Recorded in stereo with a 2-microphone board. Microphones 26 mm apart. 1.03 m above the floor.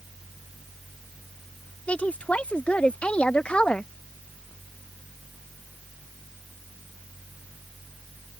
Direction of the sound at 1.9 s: 60° left (ahead or behind).